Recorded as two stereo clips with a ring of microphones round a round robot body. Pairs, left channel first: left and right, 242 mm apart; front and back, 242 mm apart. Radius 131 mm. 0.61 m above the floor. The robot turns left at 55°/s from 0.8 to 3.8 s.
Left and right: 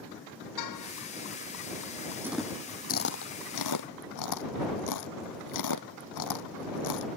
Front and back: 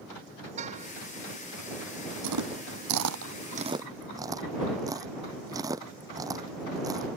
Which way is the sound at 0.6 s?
115° left.